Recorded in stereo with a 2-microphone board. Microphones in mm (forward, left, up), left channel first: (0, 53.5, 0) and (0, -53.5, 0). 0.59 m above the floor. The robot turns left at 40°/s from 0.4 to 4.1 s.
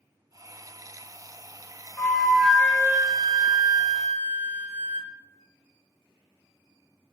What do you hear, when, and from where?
2.0 s a flute: 15° left, 0.5 m; by 5.1 s 70° right, 0.5 m